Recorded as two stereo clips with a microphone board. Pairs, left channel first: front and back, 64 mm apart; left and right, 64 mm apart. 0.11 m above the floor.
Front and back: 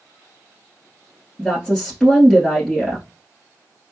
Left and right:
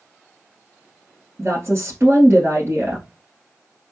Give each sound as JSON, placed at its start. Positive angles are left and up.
{"t": 1.4, "sound": "a woman speaking", "azimuth_deg": -75, "distance_m": 1.7}